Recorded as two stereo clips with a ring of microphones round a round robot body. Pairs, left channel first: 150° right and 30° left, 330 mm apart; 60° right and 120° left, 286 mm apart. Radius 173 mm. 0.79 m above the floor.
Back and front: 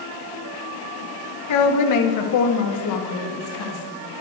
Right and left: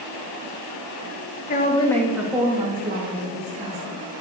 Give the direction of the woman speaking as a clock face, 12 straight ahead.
4 o'clock.